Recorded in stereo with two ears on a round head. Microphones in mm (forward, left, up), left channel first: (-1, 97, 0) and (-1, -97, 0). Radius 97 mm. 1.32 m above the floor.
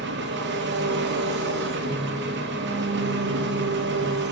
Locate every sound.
0.0 s an engine running: 50° right (ahead or behind), 0.8 m
1.8 s a piano: 75° left (ahead or behind), 4 m